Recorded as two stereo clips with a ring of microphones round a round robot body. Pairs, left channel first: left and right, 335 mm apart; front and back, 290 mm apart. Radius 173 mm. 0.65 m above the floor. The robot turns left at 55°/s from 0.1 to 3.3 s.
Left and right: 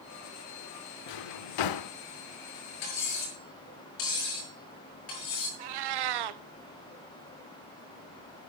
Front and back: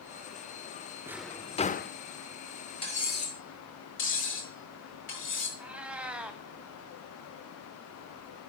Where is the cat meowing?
95° right, 0.8 m.